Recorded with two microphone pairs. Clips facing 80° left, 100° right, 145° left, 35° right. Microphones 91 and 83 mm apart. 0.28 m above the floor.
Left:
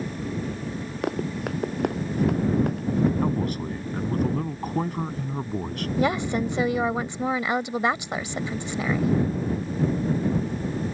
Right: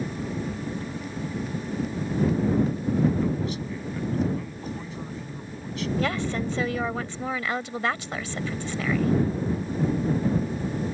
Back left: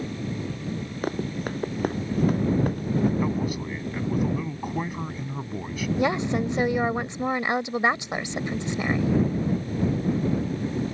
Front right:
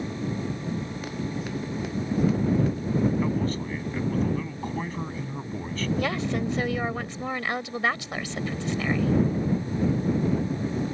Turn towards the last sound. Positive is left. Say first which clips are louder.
# left 5 dB, back left 6 dB
turn(degrees=120)